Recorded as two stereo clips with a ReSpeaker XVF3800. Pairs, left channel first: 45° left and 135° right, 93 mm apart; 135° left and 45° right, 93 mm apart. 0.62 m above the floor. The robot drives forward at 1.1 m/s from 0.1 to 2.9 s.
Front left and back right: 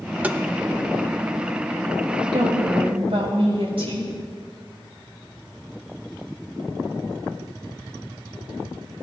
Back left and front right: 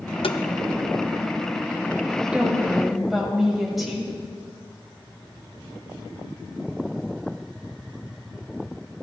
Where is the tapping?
150° left, 0.6 m; by 0.4 s 160° left, 0.7 m.